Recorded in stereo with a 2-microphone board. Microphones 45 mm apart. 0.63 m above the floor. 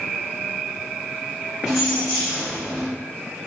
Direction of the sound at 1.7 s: 5° right (ahead or behind).